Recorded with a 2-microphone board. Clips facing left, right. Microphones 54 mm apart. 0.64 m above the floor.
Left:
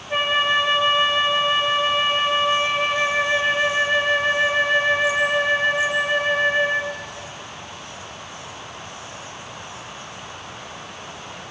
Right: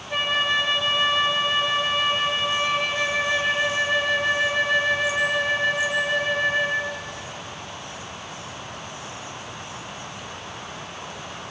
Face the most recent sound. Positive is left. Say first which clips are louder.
# left 3 dB
turn(degrees=20)  # may be behind; listen again after turning